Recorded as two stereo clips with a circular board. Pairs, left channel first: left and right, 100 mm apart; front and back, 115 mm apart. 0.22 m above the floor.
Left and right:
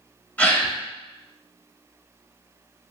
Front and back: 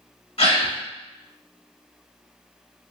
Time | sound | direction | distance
0.4 | a gasp | 20° left | 0.8 m